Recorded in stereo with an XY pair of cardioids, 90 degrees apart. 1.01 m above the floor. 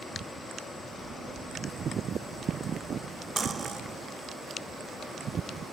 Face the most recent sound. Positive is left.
turn(degrees=-40)